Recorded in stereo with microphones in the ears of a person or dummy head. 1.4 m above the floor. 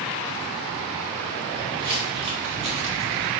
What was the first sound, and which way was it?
Footsteps, 25° right (ahead or behind).